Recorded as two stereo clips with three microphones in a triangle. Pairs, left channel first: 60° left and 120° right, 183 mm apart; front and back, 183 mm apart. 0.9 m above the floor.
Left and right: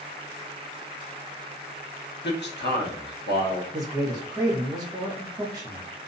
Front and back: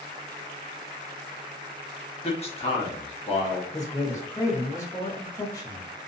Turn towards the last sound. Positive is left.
turn(degrees=-60)